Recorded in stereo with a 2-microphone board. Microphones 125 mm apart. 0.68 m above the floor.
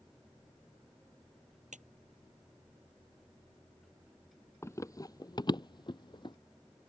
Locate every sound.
1.7 s a clap: 85° right
4.6 s running footsteps: 20° left (ahead or behind); by 6.4 s 40° left (ahead or behind)